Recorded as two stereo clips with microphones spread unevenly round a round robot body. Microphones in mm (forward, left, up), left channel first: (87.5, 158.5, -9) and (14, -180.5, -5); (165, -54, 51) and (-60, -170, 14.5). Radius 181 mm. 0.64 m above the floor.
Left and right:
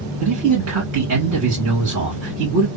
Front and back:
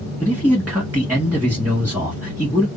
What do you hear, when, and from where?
0.2 s a man speaking: 80° right, 1.5 m